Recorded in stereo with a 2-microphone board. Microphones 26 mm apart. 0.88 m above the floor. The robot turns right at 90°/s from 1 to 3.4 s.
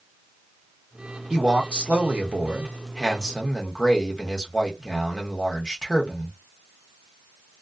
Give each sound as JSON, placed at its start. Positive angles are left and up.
{"t": 1.3, "sound": "a man speaking", "azimuth_deg": -155, "distance_m": 1.0}